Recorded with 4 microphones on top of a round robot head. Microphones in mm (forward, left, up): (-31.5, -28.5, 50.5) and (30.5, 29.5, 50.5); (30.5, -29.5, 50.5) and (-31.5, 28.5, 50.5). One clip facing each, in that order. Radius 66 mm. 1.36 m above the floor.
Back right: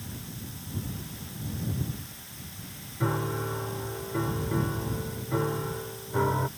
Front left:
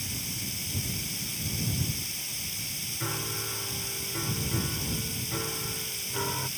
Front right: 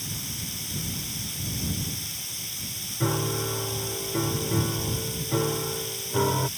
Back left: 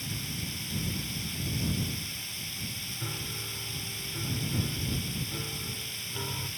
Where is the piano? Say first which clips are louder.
Back right 7 dB, front right 15 dB; 75° right.